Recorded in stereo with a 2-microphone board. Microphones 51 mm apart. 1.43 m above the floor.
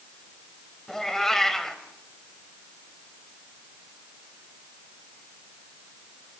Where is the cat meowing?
5° left (ahead or behind), 2.5 m.